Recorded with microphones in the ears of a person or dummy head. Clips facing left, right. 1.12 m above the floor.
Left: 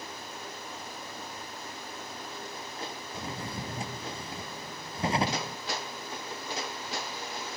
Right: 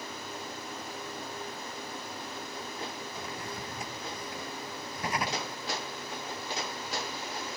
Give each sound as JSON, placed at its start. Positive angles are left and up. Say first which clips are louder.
{"t": 3.1, "sound": "a drawer", "louder": "left 1 dB", "side_deg": 20}